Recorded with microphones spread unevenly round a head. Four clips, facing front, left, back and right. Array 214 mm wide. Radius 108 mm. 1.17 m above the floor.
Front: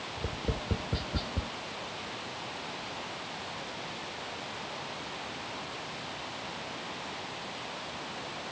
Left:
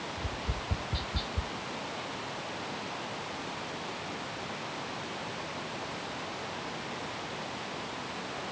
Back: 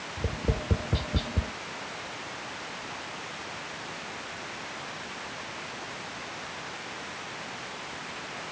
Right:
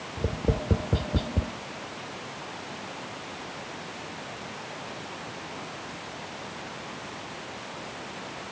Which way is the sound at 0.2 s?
105° right.